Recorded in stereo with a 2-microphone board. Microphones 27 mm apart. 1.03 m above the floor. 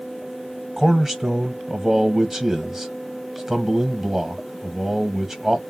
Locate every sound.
0.8 s a man speaking: 15° right (ahead or behind), 1.1 m